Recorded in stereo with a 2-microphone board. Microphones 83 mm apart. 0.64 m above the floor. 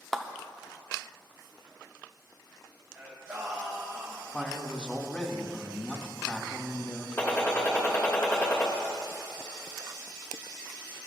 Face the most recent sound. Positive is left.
turn(degrees=30)  # may be behind; listen again after turning